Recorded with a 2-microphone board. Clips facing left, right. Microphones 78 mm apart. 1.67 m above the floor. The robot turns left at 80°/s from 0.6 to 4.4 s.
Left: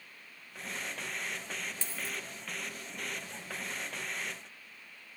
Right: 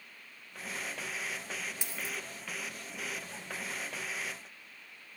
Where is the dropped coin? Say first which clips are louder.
Even; 15° right (ahead or behind), 0.9 m; by 2.2 s 20° right (ahead or behind), 0.9 m.